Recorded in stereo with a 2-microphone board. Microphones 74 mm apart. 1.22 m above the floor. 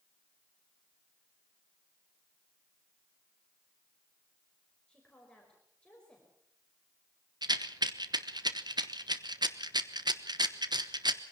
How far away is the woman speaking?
About 4.5 m.